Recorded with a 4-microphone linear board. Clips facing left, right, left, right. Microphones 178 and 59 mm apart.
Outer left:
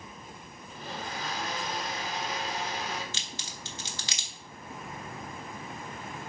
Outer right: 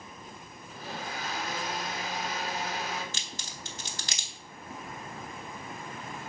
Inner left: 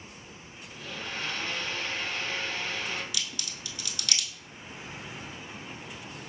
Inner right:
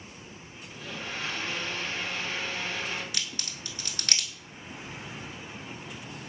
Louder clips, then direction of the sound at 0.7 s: Even, even; 5° right (ahead or behind).